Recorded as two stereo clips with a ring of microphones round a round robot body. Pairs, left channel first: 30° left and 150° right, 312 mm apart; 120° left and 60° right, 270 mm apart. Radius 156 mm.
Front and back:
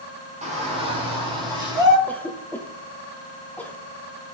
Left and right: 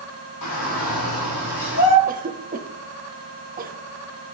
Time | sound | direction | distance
0.4 | a shout | 140° left | 2 m
2.1 | a cough | 50° right | 0.8 m